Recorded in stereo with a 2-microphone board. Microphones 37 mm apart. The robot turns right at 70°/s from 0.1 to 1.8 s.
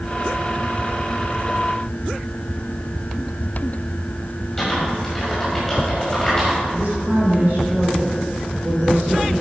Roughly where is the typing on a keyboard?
Centre.